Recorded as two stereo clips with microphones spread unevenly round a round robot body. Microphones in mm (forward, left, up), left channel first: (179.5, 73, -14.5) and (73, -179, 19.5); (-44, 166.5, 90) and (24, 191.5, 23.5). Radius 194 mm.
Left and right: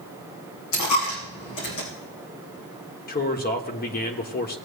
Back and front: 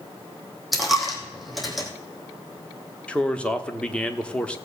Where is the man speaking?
60° left, 1.2 m.